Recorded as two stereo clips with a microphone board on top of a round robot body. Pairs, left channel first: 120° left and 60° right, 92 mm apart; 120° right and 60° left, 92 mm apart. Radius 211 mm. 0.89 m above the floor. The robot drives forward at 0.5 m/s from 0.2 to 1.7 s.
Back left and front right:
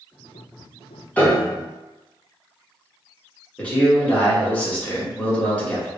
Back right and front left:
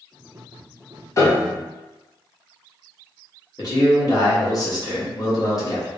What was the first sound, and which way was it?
A piano, 170° right.